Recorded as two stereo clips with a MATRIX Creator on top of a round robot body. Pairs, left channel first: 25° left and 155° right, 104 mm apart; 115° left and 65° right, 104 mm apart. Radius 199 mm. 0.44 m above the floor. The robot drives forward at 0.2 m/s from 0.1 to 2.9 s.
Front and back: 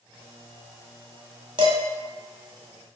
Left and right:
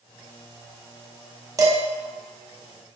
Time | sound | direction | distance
1.6 | dishes clattering | 125° right | 0.7 m